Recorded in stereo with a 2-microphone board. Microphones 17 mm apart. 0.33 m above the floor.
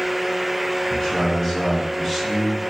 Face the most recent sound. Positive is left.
turn(degrees=15)  # may be behind; listen again after turning